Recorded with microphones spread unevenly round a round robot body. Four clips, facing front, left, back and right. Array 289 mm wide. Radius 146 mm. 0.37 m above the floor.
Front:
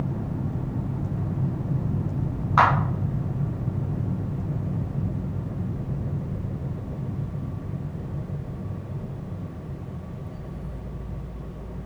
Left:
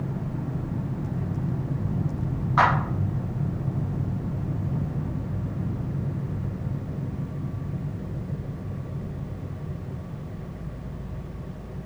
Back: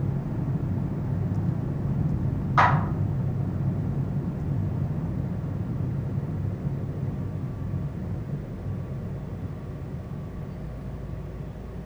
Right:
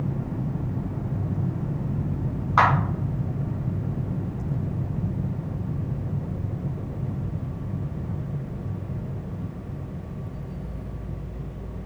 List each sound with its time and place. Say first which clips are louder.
2.6 s a clap: right 1 dB, front 2 dB; 60° right, 3 m